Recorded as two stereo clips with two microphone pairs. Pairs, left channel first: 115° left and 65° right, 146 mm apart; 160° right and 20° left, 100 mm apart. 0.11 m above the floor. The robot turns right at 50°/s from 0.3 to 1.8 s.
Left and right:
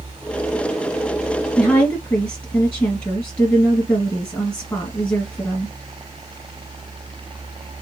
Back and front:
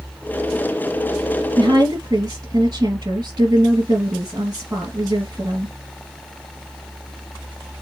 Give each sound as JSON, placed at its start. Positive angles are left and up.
{"t": 1.6, "sound": "a woman speaking", "azimuth_deg": 40, "distance_m": 2.0}